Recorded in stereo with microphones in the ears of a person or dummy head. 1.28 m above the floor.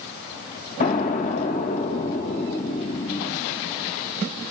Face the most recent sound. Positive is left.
turn(degrees=50)  # may be behind; listen again after turning